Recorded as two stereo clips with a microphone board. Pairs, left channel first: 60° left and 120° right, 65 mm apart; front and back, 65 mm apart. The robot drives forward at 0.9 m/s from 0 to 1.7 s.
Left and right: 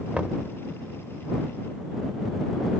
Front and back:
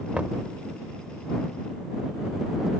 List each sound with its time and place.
0.1 s knocking: 150° right; by 0.5 s 165° right